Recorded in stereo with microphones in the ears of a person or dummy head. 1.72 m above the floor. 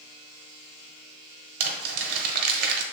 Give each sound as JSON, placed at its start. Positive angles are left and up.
{"t": 1.6, "sound": "crumpling", "side_deg": -60, "distance_m": 1.4}